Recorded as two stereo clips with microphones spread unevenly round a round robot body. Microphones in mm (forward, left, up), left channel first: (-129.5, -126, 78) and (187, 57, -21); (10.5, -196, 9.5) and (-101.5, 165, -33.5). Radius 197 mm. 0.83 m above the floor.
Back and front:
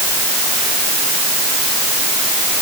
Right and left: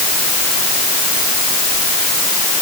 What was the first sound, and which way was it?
Only background noise.